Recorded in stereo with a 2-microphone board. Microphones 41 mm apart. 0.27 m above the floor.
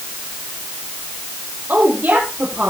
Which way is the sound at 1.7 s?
55° right (ahead or behind).